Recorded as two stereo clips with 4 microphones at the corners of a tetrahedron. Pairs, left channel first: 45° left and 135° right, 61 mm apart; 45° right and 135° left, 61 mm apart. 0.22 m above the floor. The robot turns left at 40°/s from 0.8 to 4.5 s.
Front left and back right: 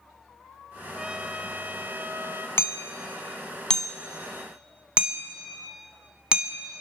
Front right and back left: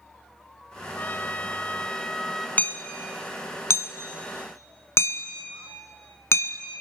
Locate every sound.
0.9 s a trumpet: 70° right, 1.3 m; by 2.5 s 130° right, 1.3 m
2.6 s hammering: 10° left, 1.2 m; by 6.6 s 65° right, 1.2 m